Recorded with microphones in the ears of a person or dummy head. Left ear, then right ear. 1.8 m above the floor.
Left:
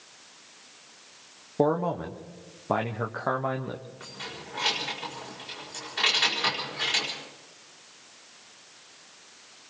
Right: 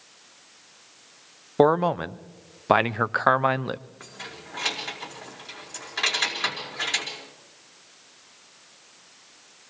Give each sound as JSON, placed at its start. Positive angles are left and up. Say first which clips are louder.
{"t": 1.6, "sound": "a man speaking", "louder": "right 6 dB", "side_deg": -55, "distance_m": 0.8}
{"t": 4.0, "sound": "keys jangling", "louder": "left 1 dB", "side_deg": -30, "distance_m": 5.0}